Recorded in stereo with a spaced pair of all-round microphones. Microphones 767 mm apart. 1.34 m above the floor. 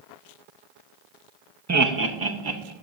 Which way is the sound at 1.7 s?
25° right (ahead or behind).